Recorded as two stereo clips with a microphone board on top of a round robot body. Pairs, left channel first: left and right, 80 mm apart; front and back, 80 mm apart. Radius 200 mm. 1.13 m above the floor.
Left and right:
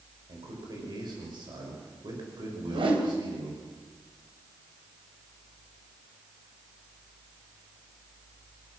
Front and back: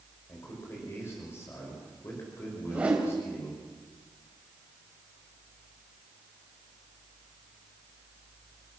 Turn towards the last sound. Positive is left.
turn(degrees=-105)